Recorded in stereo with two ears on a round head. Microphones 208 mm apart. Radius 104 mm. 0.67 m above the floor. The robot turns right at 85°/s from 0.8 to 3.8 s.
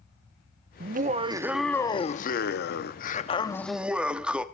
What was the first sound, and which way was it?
Laughter, 70° right.